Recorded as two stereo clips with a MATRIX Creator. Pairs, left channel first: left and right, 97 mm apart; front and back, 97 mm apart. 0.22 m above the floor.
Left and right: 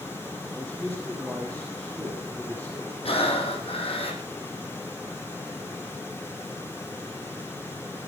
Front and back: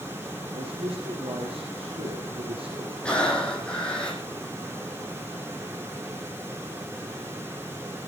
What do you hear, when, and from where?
0.5 s a man speaking: straight behind, 6 m
3.0 s breathing: 80° left, 5 m